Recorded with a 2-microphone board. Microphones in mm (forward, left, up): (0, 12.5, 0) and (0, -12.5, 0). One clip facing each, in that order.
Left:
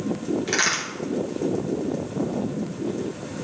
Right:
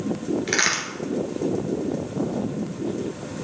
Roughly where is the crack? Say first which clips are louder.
Right 1 dB; right.